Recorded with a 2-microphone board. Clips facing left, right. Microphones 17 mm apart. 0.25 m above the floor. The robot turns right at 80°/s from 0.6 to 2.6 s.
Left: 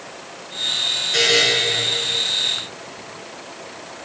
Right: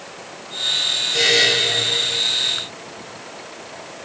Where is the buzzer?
35° left (ahead or behind), 2.5 m; by 1.4 s 15° left (ahead or behind), 2.5 m.